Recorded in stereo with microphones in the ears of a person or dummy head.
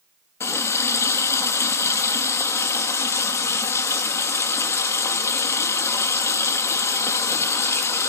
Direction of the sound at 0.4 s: 20° left (ahead or behind).